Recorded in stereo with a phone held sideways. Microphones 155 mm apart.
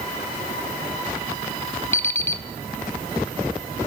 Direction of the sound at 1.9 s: 15° left (ahead or behind).